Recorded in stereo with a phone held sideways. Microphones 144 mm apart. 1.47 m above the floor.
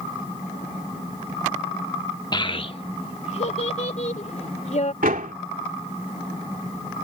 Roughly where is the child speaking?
Left.